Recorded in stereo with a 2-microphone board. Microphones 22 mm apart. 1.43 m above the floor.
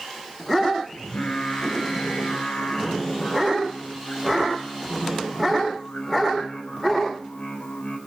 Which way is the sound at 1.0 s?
75° left (ahead or behind).